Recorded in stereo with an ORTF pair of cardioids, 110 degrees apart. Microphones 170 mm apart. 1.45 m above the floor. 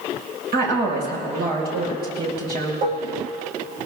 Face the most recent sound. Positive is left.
turn(degrees=-55)